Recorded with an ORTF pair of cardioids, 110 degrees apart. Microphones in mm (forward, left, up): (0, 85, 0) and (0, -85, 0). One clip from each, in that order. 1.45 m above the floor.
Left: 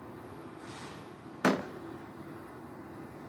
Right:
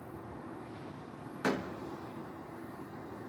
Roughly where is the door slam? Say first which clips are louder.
Left 5 dB; ahead left.